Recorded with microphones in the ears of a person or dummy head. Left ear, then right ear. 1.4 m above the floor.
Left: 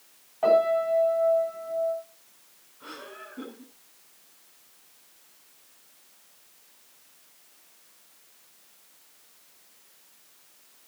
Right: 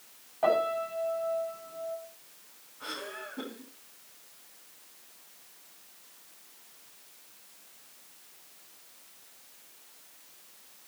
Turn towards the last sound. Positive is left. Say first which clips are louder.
# right 3 dB
turn(degrees=-20)  # may be behind; listen again after turning